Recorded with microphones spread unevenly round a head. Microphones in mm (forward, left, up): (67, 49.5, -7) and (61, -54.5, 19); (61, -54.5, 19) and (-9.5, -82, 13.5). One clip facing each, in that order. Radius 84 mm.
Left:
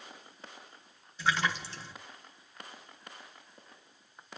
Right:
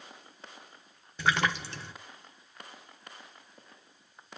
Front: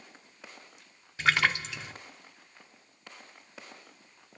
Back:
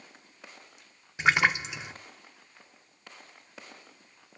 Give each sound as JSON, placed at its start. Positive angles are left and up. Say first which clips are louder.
{"t": 1.2, "sound": "a splash", "louder": "right 2 dB, back 2 dB", "azimuth_deg": -85, "distance_m": 0.9}